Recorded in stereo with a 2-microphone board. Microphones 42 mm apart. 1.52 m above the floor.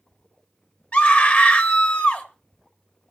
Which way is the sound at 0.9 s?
45° left (ahead or behind).